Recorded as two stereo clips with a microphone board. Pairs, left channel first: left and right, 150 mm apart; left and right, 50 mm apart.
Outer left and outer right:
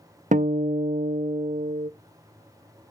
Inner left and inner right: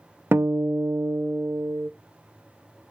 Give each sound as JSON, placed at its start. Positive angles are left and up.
{"t": 0.3, "sound": "a guitar", "side_deg": -55, "distance_m": 0.6}